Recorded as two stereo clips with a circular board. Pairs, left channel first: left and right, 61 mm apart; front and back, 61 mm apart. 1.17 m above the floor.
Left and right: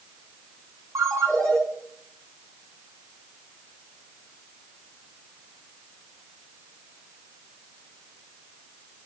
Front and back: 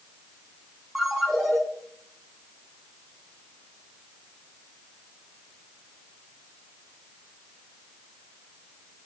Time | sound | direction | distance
0.9 | a ringtone | 90° right | 7 m